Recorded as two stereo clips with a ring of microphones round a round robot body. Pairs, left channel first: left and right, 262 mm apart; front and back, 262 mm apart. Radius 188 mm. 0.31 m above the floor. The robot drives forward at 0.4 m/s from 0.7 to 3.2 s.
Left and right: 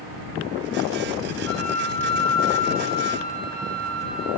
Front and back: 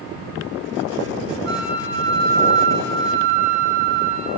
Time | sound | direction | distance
1.4 | a flute | 130° left | 4 m